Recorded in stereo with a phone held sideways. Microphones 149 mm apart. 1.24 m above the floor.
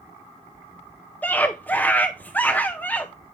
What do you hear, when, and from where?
1.2 s a scream: 10° left (ahead or behind), 0.7 m